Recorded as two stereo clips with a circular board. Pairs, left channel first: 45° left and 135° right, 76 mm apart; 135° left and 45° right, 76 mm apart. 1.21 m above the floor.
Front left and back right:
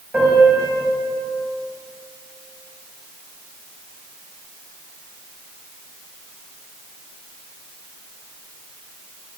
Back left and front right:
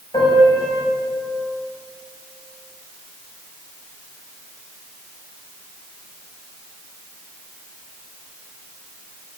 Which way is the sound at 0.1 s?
155° left.